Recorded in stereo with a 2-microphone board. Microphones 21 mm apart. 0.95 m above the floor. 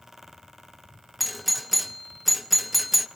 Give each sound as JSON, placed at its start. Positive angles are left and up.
{"t": 1.2, "sound": "a doorbell", "side_deg": -5, "distance_m": 0.8}